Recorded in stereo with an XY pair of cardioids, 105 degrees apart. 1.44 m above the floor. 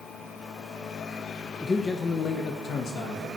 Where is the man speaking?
20° left, 1.1 m; by 3.3 s 65° left, 2 m.